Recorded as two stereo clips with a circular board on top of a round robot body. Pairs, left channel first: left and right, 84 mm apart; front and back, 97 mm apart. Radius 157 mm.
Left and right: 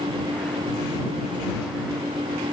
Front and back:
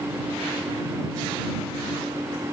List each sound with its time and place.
Only background noise.